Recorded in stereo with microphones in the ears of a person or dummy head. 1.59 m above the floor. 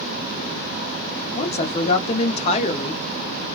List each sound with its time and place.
1.4 s a woman speaking: 40° left (ahead or behind), 0.9 m